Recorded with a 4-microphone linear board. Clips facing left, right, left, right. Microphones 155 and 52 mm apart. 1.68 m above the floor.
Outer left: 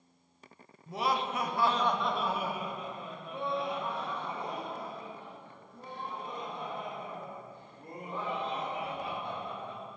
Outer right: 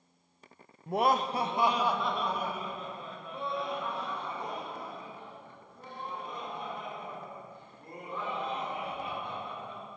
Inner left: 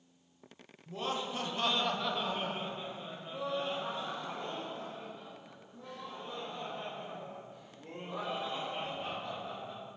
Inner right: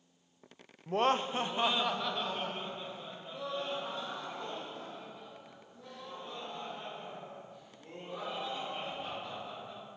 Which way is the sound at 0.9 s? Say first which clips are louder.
Outer right 4 dB, inner right 7 dB; 65° right (ahead or behind).